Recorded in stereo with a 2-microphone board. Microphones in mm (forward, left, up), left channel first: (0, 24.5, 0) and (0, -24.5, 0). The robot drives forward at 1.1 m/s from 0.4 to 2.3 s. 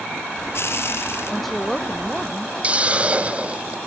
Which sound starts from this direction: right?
A hiss, at 2.6 s.